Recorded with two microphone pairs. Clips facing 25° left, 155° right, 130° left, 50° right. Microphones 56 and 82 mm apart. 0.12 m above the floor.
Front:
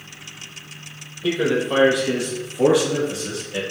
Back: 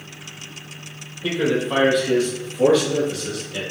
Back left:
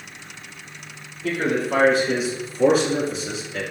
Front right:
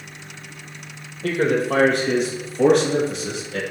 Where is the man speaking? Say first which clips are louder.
Front 1 dB, front right 3 dB; 65° right, 3.5 m; by 3.6 s 35° right, 3.5 m.